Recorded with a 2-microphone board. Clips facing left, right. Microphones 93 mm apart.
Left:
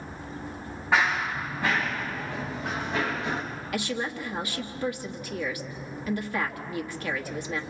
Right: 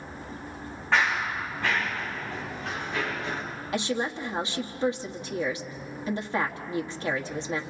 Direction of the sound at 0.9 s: 10° left (ahead or behind).